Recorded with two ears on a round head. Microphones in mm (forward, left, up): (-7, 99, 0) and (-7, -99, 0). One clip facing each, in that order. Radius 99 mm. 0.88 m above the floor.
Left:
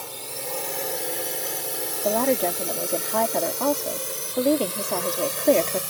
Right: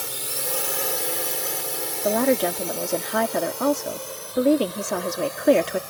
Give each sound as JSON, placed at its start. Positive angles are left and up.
{"t": 0.0, "sound": "a drone", "side_deg": -20}
{"t": 2.0, "sound": "a woman speaking", "side_deg": -15}